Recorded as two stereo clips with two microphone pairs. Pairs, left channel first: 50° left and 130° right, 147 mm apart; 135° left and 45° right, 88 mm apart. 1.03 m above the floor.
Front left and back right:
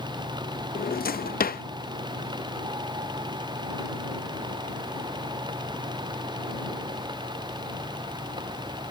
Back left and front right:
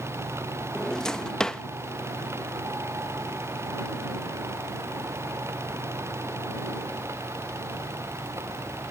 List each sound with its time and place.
0.8 s a drawer: 50° left